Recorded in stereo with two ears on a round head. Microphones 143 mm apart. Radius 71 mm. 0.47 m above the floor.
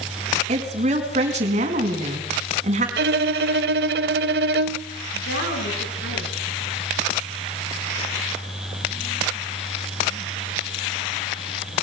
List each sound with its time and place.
0.5 s a woman speaking: 45° right (ahead or behind), 4.5 m
3.0 s a violin: 70° right (ahead or behind), 0.9 m
5.1 s a woman speaking: 80° left, 7 m